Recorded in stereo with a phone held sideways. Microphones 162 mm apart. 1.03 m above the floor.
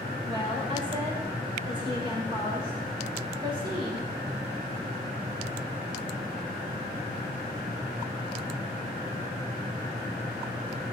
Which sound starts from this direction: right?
A woman speaking, at 0.2 s.